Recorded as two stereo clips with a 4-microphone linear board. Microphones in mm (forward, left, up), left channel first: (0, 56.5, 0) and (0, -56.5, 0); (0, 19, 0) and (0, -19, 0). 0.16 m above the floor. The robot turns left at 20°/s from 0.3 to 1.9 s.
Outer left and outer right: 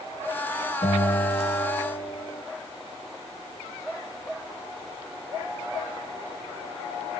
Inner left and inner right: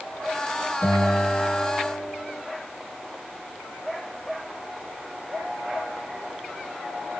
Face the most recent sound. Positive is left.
turn(degrees=55)  # may be behind; listen again after turning